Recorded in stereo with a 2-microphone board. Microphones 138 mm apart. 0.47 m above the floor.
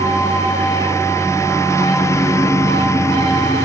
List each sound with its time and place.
0.0 s a lawn mower: 20° left (ahead or behind)